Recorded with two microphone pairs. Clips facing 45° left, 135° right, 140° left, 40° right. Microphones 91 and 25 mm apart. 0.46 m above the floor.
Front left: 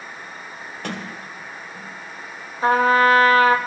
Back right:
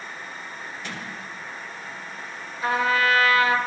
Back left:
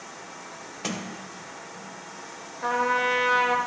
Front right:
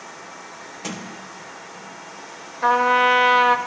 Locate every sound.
0.8 s a sliding door: 65° left, 1.7 m
2.6 s a trumpet: 5° left, 1.0 m